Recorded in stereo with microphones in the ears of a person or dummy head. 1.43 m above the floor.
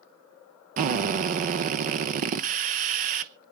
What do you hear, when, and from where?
0.8 s a drill: 40° right (ahead or behind), 0.7 m